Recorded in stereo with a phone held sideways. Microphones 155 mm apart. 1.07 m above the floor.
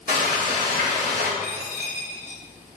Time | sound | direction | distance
0.1 | frying | 70° right (ahead or behind) | 1.2 m
1.4 | a dropped coin | 10° right (ahead or behind) | 0.9 m